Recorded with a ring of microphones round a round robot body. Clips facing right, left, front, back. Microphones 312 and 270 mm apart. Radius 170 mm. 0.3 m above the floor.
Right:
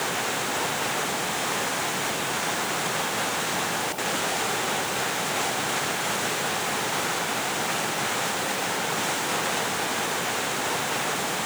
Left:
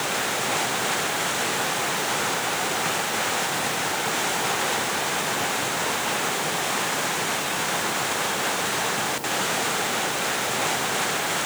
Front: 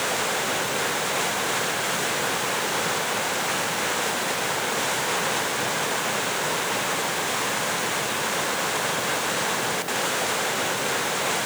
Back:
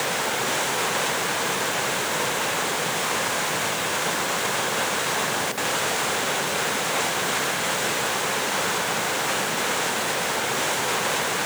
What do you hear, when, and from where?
Only background noise.